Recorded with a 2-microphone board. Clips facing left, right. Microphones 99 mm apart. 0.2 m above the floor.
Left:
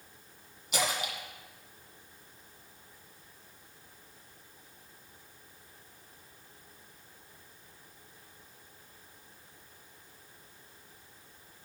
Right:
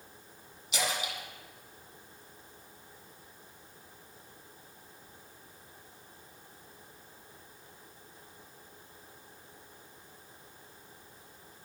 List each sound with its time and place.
0.7 s a splash: 50° left (ahead or behind), 1.6 m